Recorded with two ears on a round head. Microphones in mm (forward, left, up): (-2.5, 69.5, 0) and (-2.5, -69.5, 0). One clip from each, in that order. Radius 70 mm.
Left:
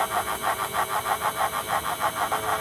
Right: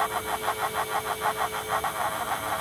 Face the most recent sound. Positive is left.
No sound to turn to.